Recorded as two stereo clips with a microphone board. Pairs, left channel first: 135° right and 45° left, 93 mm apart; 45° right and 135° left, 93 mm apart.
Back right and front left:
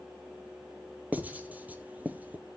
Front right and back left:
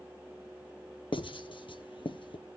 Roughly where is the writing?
Ahead right.